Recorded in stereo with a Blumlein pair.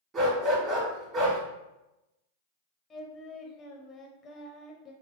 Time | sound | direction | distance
0.1 | a dog barking | 25° right | 1.7 m
2.9 | singing | 20° left | 0.6 m